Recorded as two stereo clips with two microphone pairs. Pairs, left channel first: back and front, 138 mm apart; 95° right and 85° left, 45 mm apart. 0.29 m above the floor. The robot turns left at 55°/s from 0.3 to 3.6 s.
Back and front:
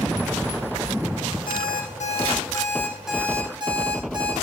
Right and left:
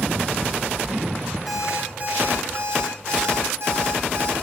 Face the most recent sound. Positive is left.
turn(degrees=55)